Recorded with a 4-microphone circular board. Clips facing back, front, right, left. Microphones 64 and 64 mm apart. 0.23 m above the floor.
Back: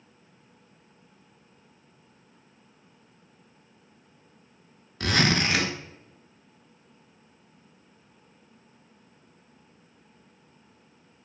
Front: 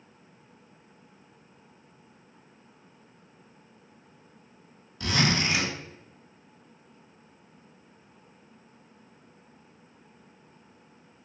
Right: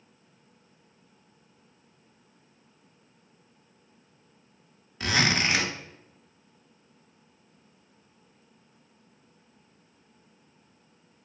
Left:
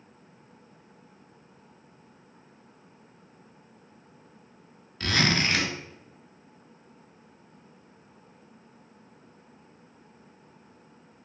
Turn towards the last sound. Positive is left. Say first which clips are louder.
# back 2 dB, even
turn(degrees=-170)